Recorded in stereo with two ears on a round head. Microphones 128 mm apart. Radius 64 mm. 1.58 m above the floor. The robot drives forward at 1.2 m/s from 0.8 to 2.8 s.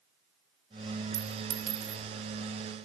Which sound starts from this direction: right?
A clink, at 1.1 s.